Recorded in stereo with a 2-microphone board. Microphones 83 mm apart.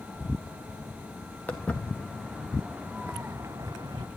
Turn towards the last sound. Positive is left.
turn(degrees=-50)  # may be behind; listen again after turning